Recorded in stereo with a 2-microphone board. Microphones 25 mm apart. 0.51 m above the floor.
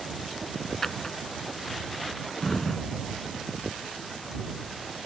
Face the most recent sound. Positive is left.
turn(degrees=20)  # may be behind; listen again after turning